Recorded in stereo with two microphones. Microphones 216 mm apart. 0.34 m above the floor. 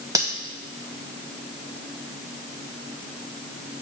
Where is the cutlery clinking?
15° right (ahead or behind), 1.2 m.